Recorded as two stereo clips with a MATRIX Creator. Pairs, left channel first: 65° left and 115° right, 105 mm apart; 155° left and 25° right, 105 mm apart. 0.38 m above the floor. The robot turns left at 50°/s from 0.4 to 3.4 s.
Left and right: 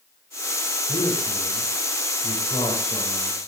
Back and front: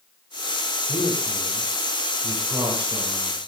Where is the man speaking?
110° left, 9.5 m; by 3.5 s 15° right, 9.5 m.